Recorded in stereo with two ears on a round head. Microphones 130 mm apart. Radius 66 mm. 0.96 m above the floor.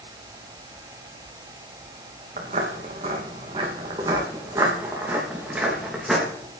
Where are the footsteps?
45° right (ahead or behind), 3 m; by 6.2 s 5° right (ahead or behind), 3.5 m.